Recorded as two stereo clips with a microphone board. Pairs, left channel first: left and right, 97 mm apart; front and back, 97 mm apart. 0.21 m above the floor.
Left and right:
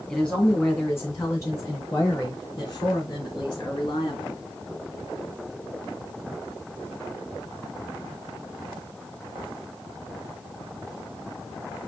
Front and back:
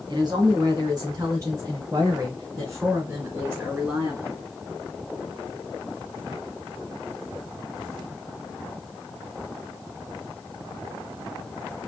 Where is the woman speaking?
165° left, 2.5 m; by 4.3 s 115° left, 3.5 m.